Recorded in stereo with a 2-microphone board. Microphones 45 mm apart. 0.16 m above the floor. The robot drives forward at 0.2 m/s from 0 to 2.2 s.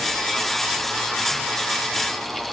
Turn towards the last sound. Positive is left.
No sound to turn to.